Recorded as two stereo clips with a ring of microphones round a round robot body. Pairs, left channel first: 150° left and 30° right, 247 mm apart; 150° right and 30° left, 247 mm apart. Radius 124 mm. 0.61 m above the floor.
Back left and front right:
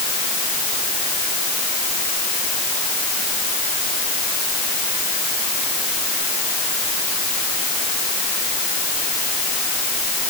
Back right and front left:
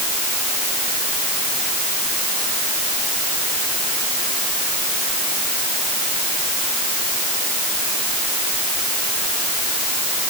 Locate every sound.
Only background noise.